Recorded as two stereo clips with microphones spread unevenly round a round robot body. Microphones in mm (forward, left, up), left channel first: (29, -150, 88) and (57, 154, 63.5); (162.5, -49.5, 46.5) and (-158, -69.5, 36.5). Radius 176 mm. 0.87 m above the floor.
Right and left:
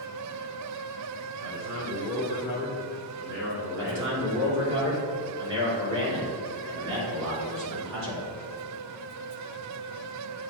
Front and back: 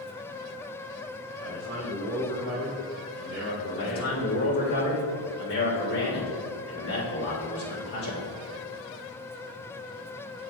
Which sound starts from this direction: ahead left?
A man speaking, at 3.8 s.